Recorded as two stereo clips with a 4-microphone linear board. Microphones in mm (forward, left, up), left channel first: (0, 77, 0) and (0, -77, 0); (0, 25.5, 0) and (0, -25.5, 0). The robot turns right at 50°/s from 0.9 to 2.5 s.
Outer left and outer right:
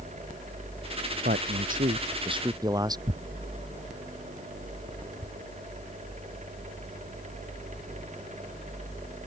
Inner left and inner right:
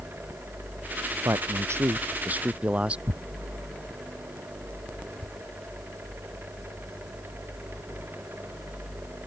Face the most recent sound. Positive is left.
turn(degrees=-55)  # may be behind; listen again after turning